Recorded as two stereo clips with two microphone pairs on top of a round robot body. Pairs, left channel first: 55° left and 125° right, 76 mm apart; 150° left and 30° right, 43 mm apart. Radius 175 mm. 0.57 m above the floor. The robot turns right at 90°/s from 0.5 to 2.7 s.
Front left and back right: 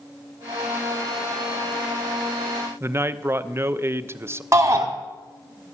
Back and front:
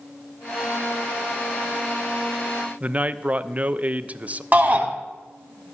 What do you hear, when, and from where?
2.8 s a man speaking: 75° right, 0.8 m
4.5 s a shout: 80° right, 2 m